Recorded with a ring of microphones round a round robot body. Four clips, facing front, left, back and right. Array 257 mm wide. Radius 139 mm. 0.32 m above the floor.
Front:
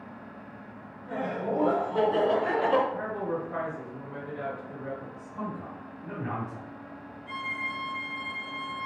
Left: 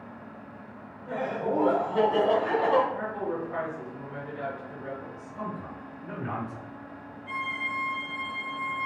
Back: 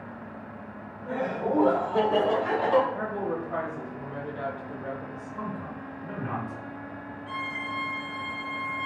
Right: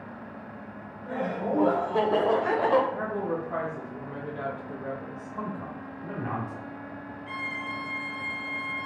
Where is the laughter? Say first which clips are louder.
Even, back 2 dB; 155° right, 1.7 m; by 2.8 s 70° right, 1.3 m.